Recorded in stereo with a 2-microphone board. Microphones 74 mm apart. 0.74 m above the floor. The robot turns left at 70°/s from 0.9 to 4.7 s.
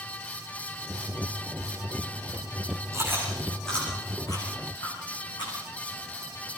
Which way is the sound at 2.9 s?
45° right (ahead or behind).